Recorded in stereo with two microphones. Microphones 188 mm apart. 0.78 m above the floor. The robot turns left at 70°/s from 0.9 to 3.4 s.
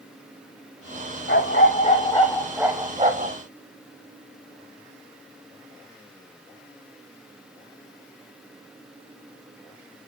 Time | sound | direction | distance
1.3 | a dog barking | 85° left | 1.2 m